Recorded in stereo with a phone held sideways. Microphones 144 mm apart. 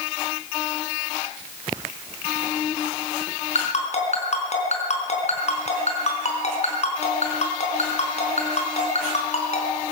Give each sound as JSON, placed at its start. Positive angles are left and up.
{"t": 3.5, "sound": "a ringtone", "side_deg": 50, "distance_m": 4.5}